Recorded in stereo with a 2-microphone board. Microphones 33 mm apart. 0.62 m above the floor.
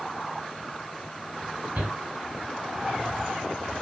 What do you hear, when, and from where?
1.8 s a shout: 55° right (ahead or behind), 6.5 m